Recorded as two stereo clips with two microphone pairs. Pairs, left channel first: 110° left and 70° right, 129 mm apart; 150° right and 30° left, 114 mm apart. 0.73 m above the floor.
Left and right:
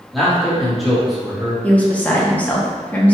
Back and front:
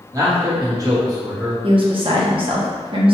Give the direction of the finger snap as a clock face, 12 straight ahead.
I don't hear a finger snap.